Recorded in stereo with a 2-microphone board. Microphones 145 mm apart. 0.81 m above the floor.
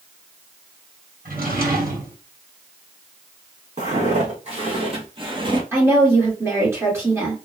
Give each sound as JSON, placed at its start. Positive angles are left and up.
{"t": 1.2, "sound": "a drawer", "side_deg": -70, "distance_m": 1.3}
{"t": 3.8, "sound": "footsteps", "side_deg": -45, "distance_m": 2.0}
{"t": 5.7, "sound": "a woman speaking", "side_deg": -15, "distance_m": 2.0}